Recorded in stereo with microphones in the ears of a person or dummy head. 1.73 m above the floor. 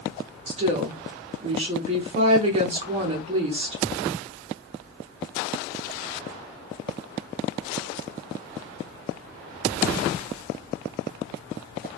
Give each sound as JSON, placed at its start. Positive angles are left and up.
{"t": 0.5, "sound": "a woman speaking", "side_deg": -40, "distance_m": 0.8}